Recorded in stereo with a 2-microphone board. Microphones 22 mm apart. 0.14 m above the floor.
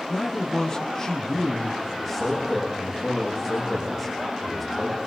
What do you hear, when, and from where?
0.1 s a man speaking: 25° left (ahead or behind), 5 m
1.9 s a man speaking: 5° left (ahead or behind), 8 m